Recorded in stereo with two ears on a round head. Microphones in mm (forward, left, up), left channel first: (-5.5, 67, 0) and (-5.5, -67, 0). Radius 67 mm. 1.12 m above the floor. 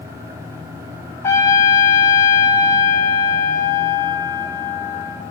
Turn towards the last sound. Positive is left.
turn(degrees=20)  # may be behind; listen again after turning